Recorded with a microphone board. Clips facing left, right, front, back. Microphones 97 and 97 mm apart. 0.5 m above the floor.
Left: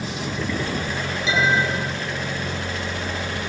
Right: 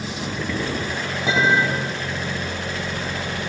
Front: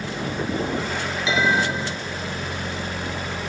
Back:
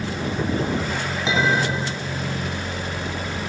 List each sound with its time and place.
1.3 s a clink: 125° right, 3 m